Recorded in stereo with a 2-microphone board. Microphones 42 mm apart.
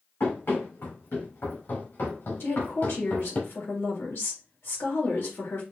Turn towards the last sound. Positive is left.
turn(degrees=60)  # may be behind; listen again after turning